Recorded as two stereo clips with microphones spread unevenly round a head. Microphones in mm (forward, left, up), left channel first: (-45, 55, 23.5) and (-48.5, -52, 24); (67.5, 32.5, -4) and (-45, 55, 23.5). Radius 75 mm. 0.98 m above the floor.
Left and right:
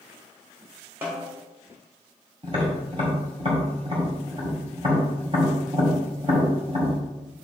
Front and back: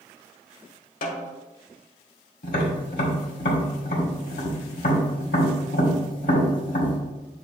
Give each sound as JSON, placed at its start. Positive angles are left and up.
{"t": 1.0, "sound": "a snare drum", "azimuth_deg": -15, "distance_m": 1.3}
{"t": 2.4, "sound": "tapping", "azimuth_deg": -30, "distance_m": 2.0}